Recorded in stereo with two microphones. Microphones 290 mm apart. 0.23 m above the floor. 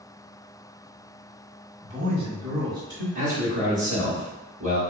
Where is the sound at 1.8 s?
25° right (ahead or behind), 1.5 m; by 3.0 s 10° right (ahead or behind), 2 m.